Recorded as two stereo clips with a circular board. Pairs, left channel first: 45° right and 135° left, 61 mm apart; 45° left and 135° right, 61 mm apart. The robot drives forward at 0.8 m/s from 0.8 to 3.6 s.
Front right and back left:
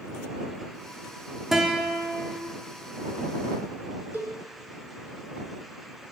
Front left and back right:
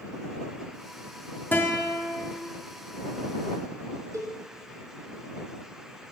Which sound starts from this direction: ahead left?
A guitar, at 1.5 s.